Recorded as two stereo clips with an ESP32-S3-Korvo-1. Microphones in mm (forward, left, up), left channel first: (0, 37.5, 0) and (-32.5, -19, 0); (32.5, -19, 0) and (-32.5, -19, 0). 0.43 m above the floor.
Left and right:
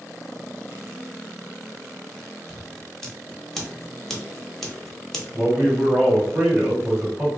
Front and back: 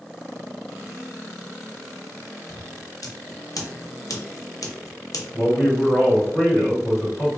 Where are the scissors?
25° right, 0.7 m.